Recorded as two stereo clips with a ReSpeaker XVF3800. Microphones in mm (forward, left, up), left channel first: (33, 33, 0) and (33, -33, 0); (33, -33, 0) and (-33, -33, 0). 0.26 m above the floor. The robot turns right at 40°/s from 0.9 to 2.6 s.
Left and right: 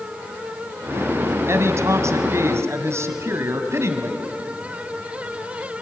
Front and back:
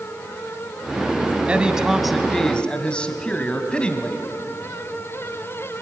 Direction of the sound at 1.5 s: 115° right.